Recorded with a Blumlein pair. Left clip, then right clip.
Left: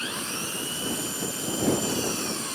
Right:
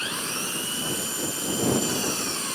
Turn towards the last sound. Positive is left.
turn(degrees=-10)